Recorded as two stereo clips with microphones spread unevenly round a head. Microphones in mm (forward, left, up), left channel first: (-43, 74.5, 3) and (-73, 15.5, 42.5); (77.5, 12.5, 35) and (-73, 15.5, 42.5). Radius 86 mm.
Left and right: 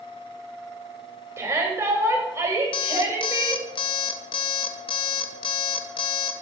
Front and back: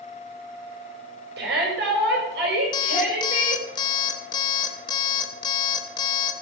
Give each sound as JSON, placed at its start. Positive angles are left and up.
{"t": 1.4, "sound": "a shout", "azimuth_deg": -160, "distance_m": 7.5}
{"t": 2.7, "sound": "an alarm clock", "azimuth_deg": 55, "distance_m": 1.2}